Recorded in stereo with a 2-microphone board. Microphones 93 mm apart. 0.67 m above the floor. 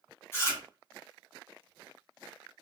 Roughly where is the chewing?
Left.